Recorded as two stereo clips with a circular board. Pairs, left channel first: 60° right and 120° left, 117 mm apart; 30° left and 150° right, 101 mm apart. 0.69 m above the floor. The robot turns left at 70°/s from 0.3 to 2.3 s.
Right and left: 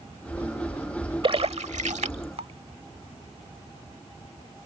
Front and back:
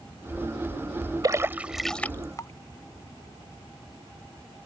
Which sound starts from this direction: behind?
A splash, at 1.2 s.